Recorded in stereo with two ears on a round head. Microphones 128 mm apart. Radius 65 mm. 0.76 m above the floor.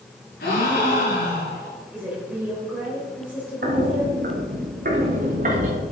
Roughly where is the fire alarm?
I don't hear a fire alarm.